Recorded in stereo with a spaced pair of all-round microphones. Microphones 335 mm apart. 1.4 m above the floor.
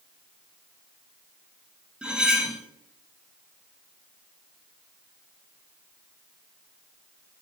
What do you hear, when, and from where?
2.0 s cutlery clinking: 5° right (ahead or behind), 0.5 m